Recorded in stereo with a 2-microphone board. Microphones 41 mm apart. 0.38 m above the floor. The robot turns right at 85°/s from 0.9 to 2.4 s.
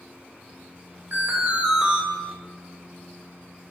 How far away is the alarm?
About 2 m.